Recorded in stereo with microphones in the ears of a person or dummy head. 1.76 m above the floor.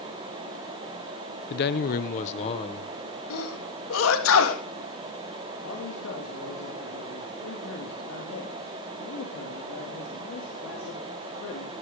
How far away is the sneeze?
About 3 m.